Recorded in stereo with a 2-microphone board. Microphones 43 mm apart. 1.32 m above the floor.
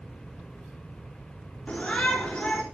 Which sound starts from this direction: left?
A shout, at 1.7 s.